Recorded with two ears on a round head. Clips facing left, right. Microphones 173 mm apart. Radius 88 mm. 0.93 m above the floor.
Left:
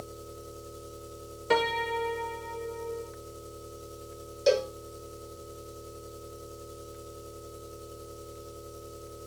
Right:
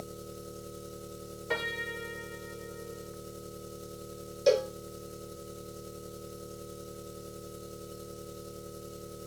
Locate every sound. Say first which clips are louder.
0.0 s an engine running: even; 25° right (ahead or behind), 1.0 m
1.5 s a piano: left 10 dB; 60° left (ahead or behind), 0.7 m
4.5 s a cowbell: even; centre (ahead or behind), 0.6 m